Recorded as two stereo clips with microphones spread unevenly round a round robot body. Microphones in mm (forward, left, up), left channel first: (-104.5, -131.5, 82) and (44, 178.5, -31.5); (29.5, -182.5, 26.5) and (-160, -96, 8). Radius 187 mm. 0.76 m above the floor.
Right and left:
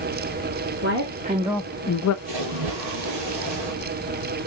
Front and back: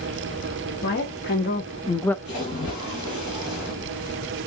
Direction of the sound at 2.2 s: 40° left.